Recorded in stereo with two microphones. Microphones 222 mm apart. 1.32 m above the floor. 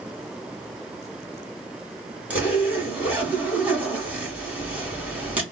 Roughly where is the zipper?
Centre.